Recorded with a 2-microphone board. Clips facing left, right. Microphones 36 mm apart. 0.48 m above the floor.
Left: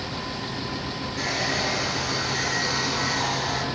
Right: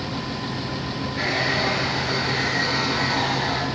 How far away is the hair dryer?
About 3.5 m.